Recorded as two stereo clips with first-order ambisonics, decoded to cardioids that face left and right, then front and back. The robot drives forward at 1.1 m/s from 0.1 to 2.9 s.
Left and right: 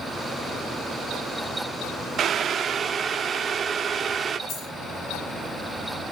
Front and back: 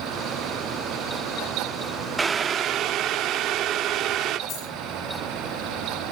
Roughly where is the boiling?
Right.